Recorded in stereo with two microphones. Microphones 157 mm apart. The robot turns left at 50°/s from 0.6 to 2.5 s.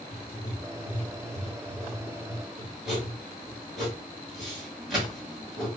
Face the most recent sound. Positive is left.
turn(degrees=0)  # may be behind; listen again after turning